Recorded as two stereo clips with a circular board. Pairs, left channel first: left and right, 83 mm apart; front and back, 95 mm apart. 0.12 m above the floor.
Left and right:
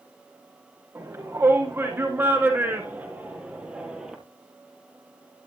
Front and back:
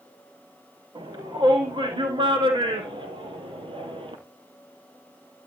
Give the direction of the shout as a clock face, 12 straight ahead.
5 o'clock.